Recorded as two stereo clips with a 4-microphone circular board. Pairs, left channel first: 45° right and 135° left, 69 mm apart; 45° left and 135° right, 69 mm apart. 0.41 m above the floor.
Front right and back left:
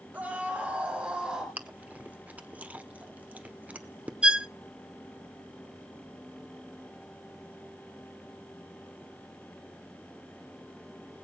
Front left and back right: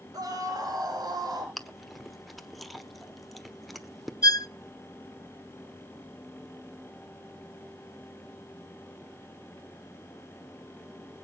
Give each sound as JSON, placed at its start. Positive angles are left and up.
{"t": 0.1, "sound": "a scream", "azimuth_deg": -160, "distance_m": 6.0}
{"t": 1.6, "sound": "chewing", "azimuth_deg": 135, "distance_m": 1.3}
{"t": 4.2, "sound": "a violin", "azimuth_deg": 60, "distance_m": 0.5}